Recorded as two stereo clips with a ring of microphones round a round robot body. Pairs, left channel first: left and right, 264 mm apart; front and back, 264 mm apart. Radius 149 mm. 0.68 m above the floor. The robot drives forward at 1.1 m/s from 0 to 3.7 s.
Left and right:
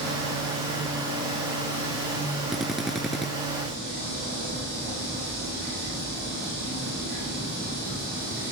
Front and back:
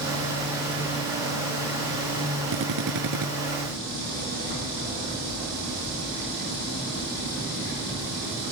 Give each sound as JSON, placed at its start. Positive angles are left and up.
{"t": 2.5, "sound": "a drill", "azimuth_deg": 180}